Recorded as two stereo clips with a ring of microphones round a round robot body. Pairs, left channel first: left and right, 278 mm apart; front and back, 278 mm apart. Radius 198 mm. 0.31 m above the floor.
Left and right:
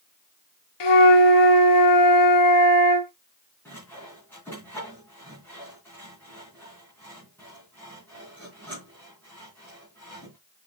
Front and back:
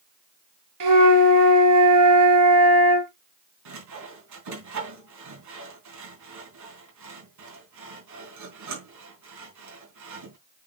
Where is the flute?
130° left, 1.1 m.